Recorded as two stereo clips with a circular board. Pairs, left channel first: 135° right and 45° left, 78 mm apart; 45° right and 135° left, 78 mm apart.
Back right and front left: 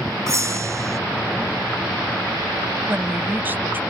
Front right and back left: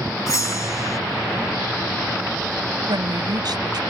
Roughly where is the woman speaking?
Left.